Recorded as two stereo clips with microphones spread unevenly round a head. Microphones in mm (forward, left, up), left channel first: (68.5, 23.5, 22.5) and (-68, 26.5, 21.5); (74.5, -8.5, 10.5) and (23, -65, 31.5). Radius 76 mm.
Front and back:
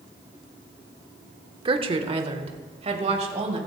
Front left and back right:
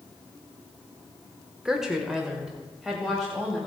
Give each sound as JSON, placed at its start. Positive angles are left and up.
{"t": 1.6, "sound": "a woman speaking", "azimuth_deg": 135, "distance_m": 1.0}